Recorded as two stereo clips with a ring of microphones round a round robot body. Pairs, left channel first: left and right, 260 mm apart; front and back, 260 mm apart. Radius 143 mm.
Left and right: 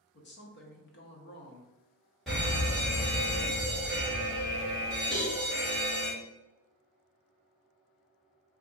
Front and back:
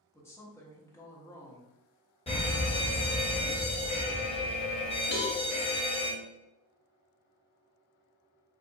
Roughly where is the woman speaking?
Left.